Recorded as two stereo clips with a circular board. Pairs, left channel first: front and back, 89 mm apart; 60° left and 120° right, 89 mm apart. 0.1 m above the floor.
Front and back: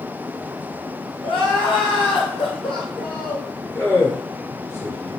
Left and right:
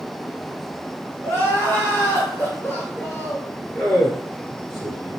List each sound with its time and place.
1.2 s crying: 10° right, 1.3 m
3.7 s a man speaking: 35° right, 1.8 m